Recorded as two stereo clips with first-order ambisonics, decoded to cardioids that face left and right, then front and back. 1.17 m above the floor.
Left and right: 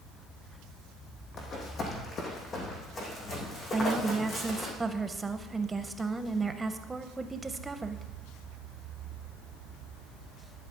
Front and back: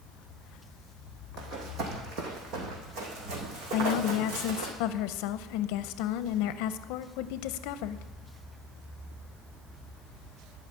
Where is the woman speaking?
15° right, 0.5 m.